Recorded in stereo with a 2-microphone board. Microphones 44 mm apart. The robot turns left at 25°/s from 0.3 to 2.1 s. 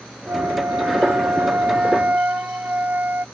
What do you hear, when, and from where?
0.3 s a flute: 95° right; by 3.2 s 140° right